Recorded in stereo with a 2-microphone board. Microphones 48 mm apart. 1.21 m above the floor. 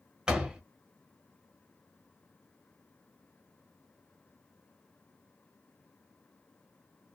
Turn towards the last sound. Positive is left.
turn(degrees=-15)  # may be behind; listen again after turning